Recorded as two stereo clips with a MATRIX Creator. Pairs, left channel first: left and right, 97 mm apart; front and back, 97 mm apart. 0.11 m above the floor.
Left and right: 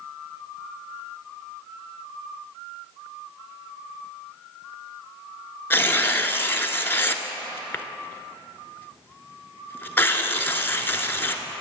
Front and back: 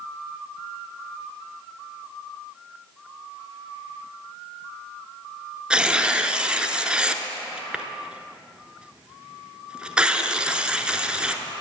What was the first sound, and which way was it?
Tearing paper, 115° left.